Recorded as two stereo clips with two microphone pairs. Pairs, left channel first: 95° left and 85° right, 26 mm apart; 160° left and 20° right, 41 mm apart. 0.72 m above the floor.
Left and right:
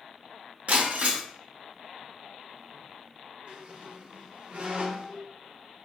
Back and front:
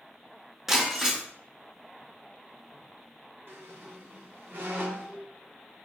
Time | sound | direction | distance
0.7 | breaking glass | 100° right | 0.7 m
3.5 | a squeak | 45° right | 0.7 m